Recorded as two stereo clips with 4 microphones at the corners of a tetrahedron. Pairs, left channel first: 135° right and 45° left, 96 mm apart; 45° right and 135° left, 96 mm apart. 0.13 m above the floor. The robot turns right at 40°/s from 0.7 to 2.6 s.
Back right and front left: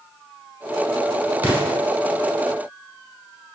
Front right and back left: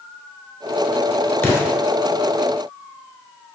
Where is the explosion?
5° right, 1.0 m; by 1.8 s 5° left, 1.0 m.